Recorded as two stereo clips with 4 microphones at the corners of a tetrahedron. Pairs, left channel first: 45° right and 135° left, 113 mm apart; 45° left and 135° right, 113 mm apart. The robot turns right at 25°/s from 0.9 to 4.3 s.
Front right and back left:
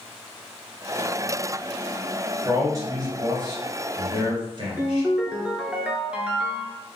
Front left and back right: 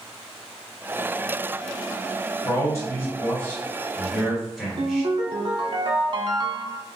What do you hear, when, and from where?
2.5 s a man speaking: 90° left, 1.8 m; by 5.1 s 135° left, 1.8 m
4.8 s a ringtone: 150° right, 0.6 m